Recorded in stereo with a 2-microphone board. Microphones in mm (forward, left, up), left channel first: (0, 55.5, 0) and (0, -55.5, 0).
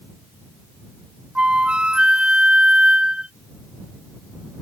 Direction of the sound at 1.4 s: 10° right (ahead or behind).